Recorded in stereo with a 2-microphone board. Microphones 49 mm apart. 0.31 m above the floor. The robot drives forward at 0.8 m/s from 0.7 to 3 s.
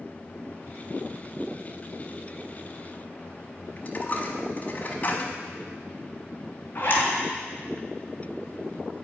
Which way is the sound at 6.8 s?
40° left (ahead or behind).